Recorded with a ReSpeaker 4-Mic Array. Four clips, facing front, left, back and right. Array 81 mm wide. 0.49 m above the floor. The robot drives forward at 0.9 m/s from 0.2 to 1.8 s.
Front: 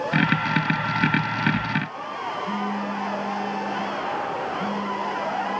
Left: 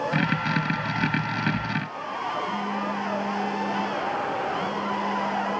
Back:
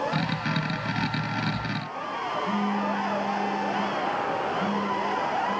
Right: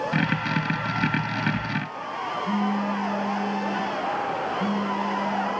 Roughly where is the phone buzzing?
Right.